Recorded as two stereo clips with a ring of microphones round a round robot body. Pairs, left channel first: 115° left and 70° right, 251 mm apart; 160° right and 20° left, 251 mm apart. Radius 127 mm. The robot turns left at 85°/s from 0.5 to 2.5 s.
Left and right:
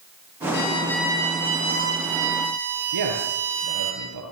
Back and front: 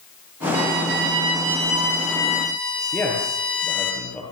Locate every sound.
0.5 s a violin: 60° left, 8.5 m; by 3.9 s 105° right, 8.5 m
2.9 s a man speaking: 75° right, 8 m